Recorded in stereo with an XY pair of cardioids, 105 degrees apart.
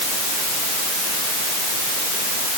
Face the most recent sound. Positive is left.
No sound to turn to.